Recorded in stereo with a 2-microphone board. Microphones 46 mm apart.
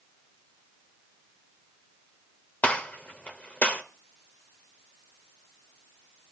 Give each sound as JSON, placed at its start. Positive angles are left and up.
{"t": 2.6, "sound": "a gunshot", "side_deg": 30, "distance_m": 1.4}